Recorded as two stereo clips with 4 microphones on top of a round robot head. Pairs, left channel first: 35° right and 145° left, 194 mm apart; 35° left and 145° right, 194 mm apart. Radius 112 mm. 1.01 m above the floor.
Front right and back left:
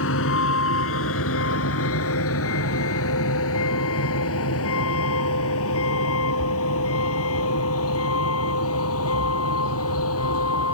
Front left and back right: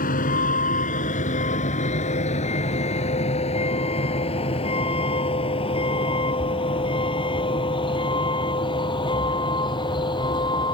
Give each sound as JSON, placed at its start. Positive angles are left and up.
{"t": 0.0, "sound": "a vehicle", "azimuth_deg": -15}